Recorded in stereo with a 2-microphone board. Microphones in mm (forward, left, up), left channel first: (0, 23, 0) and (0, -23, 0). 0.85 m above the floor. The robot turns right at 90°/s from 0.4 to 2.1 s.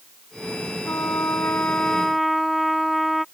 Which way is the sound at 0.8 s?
70° left.